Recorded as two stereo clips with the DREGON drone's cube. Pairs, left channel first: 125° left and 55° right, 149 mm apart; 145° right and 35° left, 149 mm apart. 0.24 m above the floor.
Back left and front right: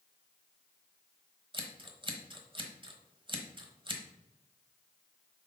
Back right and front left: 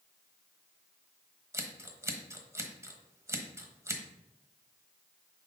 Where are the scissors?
25° right, 1.1 m.